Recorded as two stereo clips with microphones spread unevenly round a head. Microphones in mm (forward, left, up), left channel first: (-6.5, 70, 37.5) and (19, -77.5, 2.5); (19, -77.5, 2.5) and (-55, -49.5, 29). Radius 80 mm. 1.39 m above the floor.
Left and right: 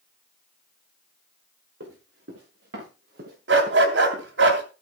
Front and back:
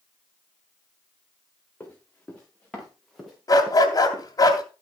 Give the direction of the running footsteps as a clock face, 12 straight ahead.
3 o'clock.